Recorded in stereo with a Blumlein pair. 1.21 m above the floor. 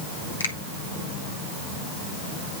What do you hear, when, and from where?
0.4 s a finger snap: 70° left, 2 m